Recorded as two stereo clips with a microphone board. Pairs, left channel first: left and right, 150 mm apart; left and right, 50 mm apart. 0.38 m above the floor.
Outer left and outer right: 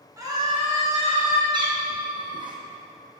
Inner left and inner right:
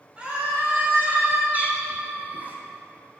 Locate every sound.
0.2 s a scream: 20° right (ahead or behind), 2.5 m; by 1.4 s 50° right (ahead or behind), 2 m
1.5 s a cat meowing: 30° right (ahead or behind), 1.4 m